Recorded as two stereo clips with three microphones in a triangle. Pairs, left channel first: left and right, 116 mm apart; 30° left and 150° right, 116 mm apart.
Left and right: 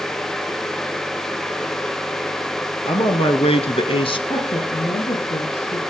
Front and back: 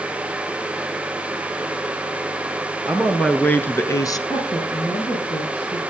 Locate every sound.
2.9 s a man speaking: 115° left, 3 m; by 4.2 s 70° left, 1.6 m
4.3 s a woman speaking: 80° left, 7.5 m